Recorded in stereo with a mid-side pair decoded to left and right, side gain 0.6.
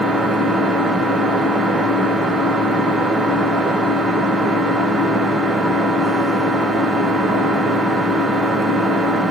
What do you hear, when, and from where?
0.0 s an engine running: 15° right, 1.1 m